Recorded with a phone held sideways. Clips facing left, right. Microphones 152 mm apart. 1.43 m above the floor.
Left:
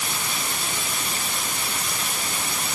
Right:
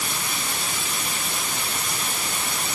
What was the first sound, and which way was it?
Only background noise.